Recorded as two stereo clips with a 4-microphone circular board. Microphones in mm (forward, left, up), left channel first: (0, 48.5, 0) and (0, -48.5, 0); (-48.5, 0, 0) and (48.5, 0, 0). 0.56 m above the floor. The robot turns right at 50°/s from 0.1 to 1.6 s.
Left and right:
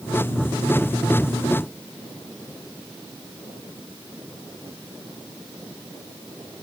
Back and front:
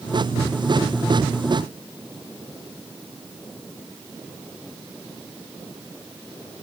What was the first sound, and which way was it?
Only background noise.